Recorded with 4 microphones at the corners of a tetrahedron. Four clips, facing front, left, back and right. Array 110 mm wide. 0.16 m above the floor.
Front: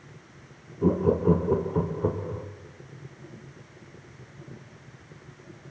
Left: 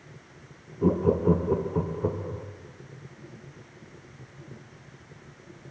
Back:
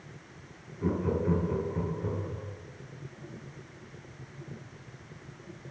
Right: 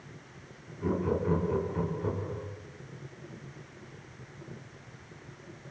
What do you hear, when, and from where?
0.8 s laughter: 50° left, 4 m; by 2.5 s 30° left, 6 m